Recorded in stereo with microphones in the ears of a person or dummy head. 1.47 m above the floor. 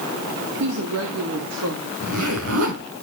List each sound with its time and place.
0.6 s a woman speaking: 85° right, 3 m; by 1.9 s 80° right, 3.5 m
2.0 s a zipper: 75° right (ahead or behind), 5 m